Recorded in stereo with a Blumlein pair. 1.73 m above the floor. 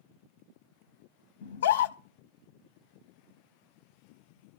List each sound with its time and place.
1.4 s a scream: 65° left, 1.0 m